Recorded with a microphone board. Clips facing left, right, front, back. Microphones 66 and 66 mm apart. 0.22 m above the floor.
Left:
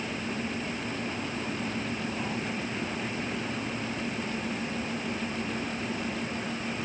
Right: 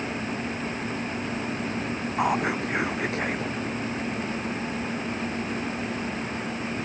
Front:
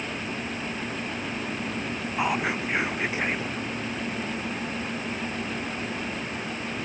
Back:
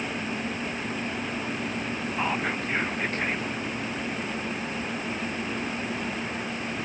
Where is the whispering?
80° right.